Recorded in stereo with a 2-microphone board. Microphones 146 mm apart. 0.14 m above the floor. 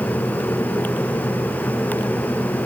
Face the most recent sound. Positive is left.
No sound to turn to.